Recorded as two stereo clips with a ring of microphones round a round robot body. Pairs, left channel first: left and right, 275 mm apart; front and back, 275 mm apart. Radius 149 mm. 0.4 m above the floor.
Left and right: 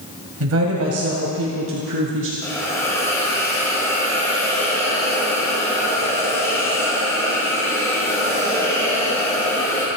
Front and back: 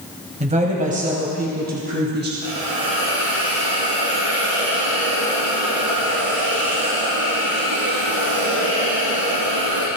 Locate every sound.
0.4 s a woman speaking: 115° right, 2 m; by 2.3 s 130° right, 3 m
2.4 s a hiss: 170° left, 5 m